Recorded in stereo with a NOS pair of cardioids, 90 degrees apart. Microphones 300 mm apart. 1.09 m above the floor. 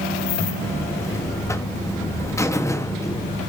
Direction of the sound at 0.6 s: 10° left.